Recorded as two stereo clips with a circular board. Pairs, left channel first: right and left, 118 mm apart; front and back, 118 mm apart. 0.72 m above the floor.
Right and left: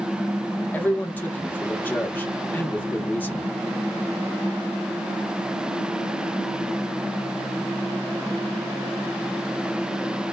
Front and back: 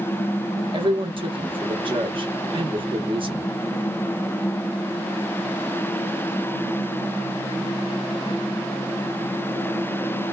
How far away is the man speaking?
About 1.0 m.